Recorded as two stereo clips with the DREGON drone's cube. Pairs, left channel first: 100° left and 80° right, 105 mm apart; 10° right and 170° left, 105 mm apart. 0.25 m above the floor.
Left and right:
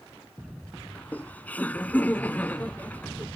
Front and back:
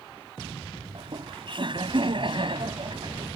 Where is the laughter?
170° left.